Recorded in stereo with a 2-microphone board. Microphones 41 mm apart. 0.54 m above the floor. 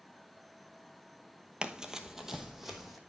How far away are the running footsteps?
About 0.8 m.